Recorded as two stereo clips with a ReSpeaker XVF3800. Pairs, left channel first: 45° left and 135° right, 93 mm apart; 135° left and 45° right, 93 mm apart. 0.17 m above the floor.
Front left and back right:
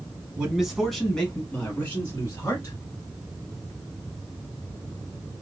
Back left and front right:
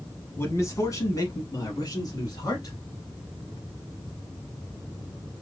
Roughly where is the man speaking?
Behind left.